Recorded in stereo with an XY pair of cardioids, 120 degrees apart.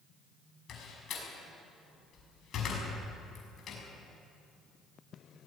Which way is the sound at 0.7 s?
55° left.